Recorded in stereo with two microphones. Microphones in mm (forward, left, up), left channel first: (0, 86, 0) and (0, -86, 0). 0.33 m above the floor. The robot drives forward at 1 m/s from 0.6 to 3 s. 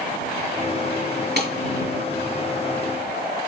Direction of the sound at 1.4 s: 75° right (ahead or behind).